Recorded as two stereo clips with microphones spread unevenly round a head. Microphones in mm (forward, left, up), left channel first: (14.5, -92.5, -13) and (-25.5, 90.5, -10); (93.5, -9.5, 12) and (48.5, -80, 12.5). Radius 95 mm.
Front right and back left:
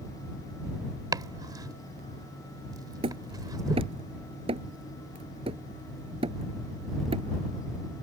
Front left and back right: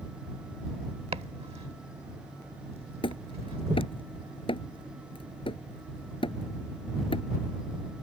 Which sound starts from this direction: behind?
Chopping, at 1.1 s.